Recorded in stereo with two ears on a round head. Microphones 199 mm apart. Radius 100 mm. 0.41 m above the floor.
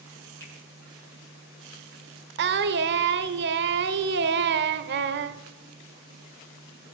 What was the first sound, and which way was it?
A finger snap, 10° left (ahead or behind).